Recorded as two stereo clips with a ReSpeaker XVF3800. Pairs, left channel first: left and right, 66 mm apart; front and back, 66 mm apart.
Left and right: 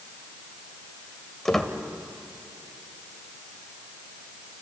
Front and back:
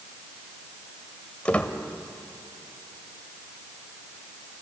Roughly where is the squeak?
Ahead.